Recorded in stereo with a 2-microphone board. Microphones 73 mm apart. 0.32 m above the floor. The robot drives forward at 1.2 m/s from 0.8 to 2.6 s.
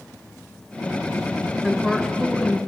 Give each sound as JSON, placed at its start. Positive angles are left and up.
{"t": 1.6, "sound": "a woman speaking", "side_deg": 0, "distance_m": 3.5}